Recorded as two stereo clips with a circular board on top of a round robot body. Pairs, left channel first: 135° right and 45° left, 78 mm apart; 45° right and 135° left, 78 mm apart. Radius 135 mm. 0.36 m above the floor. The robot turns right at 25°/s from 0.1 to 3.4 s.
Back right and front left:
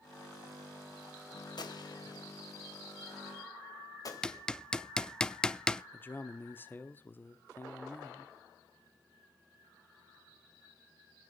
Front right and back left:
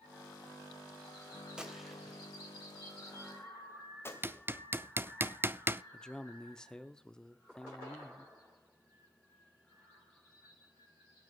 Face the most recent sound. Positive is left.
turn(degrees=-115)